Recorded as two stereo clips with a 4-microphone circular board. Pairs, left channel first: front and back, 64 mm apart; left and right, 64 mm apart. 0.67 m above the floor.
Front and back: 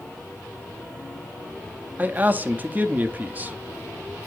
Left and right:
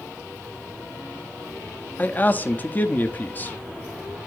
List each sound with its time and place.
2.0 s a man speaking: 135° left, 0.7 m